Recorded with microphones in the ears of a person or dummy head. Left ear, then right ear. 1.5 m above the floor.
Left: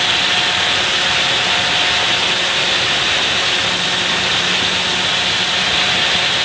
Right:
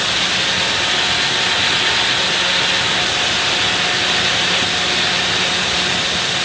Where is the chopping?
No chopping in this recording.